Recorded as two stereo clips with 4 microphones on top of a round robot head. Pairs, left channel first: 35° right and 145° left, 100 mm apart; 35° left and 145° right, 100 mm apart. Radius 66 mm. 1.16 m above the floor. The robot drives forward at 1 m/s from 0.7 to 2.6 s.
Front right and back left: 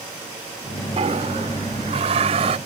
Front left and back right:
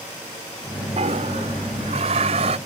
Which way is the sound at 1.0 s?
Straight behind.